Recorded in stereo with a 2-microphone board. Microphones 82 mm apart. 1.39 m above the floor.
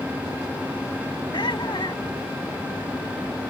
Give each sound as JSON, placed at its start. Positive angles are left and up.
{"t": 1.3, "sound": "laughter", "side_deg": 60}